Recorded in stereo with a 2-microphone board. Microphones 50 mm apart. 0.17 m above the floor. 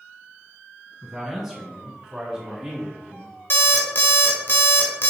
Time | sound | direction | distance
1.0 | a man speaking | 5° right (ahead or behind) | 1.2 m
3.5 | an alarm clock | 45° left (ahead or behind) | 0.8 m